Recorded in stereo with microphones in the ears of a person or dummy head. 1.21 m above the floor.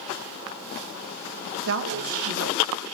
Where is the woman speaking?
65° right (ahead or behind), 1.4 m.